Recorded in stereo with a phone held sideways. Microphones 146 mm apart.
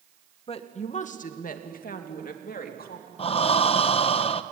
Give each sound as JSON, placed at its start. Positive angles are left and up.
{"t": 0.5, "sound": "a woman speaking", "side_deg": 40, "distance_m": 1.6}
{"t": 3.2, "sound": "breathing", "side_deg": 40, "distance_m": 0.8}